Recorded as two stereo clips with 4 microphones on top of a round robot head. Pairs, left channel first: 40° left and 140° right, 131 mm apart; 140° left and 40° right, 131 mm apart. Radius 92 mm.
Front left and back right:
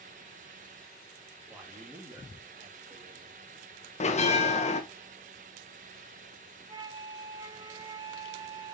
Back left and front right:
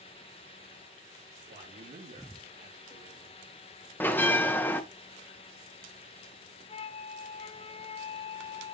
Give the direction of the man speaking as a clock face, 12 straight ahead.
2 o'clock.